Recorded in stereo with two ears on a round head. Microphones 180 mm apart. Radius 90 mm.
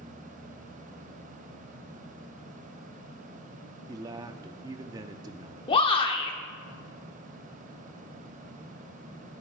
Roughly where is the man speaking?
Centre.